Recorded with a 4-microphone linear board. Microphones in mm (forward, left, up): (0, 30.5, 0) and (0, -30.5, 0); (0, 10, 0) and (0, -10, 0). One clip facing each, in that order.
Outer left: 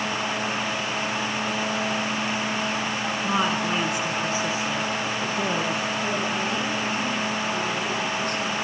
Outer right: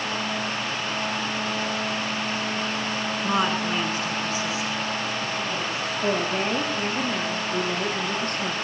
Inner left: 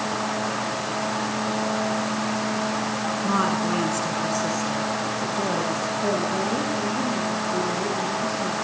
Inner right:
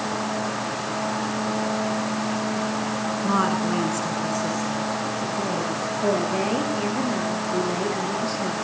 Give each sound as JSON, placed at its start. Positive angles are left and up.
{"t": 3.2, "sound": "a woman speaking", "side_deg": -10, "distance_m": 1.3}
{"t": 6.0, "sound": "a woman speaking", "side_deg": -45, "distance_m": 3.0}